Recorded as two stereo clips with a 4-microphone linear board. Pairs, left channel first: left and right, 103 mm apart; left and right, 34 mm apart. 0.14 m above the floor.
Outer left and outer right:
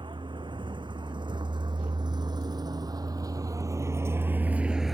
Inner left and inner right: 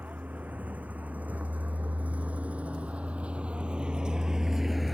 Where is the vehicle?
50° right (ahead or behind); by 4.9 s centre (ahead or behind).